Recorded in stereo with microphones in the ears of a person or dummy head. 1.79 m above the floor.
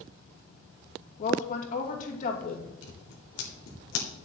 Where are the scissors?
80° left, 2 m.